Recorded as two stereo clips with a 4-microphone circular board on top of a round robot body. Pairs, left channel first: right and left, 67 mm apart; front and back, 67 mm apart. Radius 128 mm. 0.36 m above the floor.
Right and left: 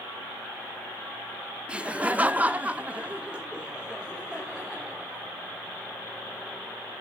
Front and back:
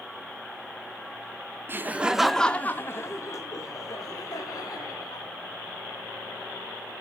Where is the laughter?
155° left, 1.2 m; by 5.2 s 10° left, 3.5 m.